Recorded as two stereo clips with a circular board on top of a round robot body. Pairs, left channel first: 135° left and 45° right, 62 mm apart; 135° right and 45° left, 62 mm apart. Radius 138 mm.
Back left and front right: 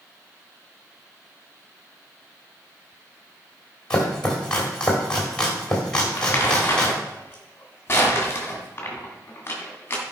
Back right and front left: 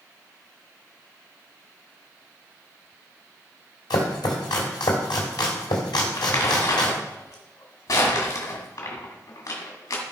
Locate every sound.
3.9 s chopping: 145° right, 1.3 m
6.0 s crumpling: 165° right, 2.0 m